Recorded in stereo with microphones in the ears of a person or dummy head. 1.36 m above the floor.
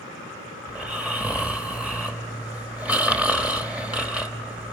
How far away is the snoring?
About 1.4 m.